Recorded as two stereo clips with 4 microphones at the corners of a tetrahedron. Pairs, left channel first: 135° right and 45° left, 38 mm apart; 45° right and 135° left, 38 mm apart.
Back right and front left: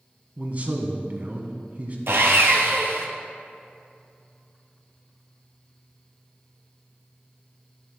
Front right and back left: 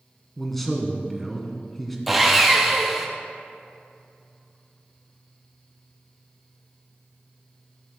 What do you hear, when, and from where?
0.4 s a man speaking: 40° left, 1.2 m
2.1 s sawing: 50° left, 1.3 m